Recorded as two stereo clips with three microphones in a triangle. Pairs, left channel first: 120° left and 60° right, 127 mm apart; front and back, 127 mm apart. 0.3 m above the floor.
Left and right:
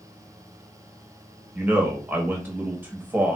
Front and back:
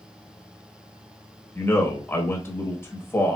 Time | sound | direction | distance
1.6 | a man speaking | 20° right | 0.9 m